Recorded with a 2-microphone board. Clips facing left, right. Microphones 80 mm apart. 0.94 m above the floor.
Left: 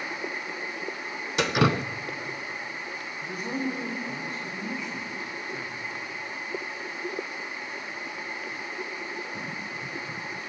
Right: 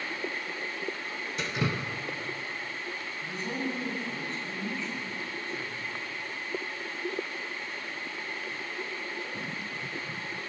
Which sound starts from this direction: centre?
A man speaking, at 3.2 s.